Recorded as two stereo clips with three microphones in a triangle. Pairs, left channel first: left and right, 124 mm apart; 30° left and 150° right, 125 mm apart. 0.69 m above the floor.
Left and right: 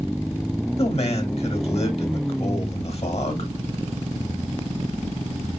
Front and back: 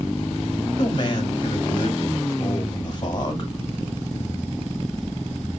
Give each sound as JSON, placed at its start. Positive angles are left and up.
{"t": 0.8, "sound": "a man speaking", "azimuth_deg": 70, "distance_m": 1.7}